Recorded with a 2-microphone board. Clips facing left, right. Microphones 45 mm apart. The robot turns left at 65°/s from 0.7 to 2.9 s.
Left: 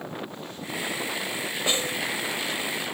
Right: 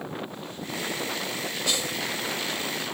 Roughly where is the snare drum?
Left.